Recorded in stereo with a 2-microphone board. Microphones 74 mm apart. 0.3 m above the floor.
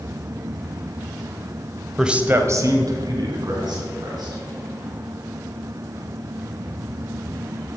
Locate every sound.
2.0 s a man speaking: centre (ahead or behind), 1.0 m; by 4.4 s 70° right (ahead or behind), 4 m